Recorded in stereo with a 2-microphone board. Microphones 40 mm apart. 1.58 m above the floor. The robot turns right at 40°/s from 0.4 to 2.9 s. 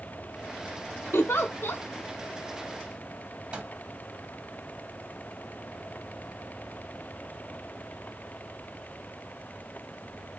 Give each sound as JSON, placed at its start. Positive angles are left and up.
{"t": 1.1, "sound": "a giggle", "side_deg": 80, "distance_m": 0.6}
{"t": 3.5, "sound": "a microwave", "side_deg": -30, "distance_m": 1.2}